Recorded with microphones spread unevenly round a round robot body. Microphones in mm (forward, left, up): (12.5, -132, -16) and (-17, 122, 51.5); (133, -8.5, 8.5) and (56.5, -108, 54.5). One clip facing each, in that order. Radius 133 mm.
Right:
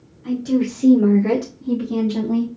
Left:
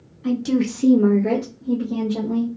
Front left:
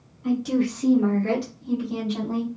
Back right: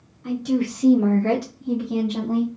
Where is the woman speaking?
105° left, 1.1 m; by 2.5 s 80° right, 1.9 m.